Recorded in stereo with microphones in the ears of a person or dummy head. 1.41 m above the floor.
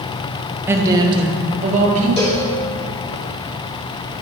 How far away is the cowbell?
About 2.5 m.